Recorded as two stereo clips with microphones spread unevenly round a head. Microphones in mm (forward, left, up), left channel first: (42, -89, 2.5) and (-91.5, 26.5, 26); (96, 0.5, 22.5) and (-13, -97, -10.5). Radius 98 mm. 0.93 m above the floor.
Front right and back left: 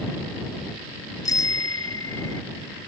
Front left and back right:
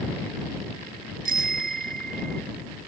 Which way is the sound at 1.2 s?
110° right.